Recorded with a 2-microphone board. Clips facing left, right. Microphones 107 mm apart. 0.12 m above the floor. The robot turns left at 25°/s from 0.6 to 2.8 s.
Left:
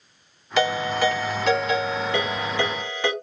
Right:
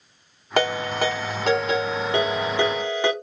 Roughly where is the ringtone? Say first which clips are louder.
Left 1 dB; right.